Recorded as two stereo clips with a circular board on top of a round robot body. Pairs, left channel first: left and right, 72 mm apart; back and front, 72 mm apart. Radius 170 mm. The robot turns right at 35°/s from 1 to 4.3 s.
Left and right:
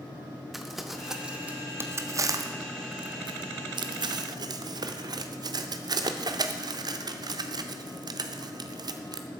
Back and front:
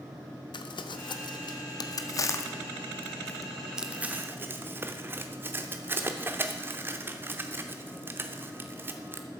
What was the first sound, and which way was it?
Crumpling, 175° right.